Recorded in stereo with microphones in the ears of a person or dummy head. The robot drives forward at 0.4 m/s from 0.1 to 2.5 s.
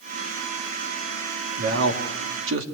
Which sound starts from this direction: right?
A man speaking, at 1.6 s.